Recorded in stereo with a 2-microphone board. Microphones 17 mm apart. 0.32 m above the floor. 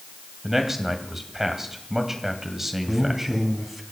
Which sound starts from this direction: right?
A man speaking, at 0.4 s.